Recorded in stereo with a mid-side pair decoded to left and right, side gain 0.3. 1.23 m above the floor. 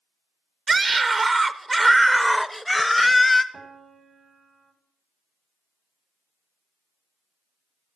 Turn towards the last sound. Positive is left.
turn(degrees=-60)